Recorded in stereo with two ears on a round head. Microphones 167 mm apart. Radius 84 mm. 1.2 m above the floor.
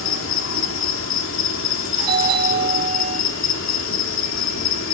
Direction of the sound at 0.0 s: 85° left.